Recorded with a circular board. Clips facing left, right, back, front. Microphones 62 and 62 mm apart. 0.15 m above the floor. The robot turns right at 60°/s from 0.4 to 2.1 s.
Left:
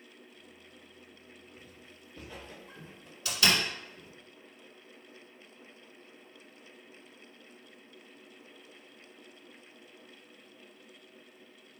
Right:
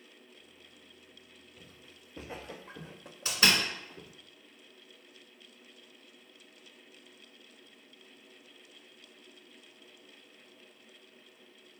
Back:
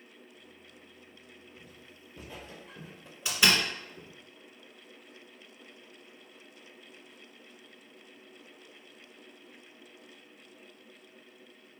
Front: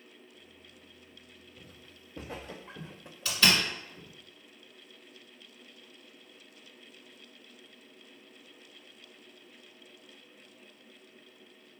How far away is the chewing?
No chewing in this recording.